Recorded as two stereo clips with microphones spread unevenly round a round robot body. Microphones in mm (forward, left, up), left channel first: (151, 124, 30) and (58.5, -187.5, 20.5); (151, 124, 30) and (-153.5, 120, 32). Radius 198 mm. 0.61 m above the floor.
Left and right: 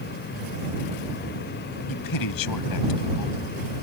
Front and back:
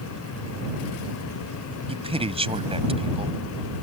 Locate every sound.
1.9 s a man speaking: 110° left